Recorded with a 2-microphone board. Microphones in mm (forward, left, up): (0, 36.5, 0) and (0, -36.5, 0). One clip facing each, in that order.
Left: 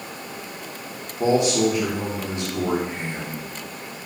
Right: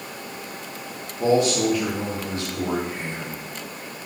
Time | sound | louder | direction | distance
1.2 | a man speaking | even | 20° left (ahead or behind) | 0.8 m